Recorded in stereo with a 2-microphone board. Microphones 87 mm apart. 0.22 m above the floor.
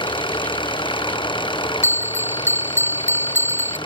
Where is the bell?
30° right (ahead or behind).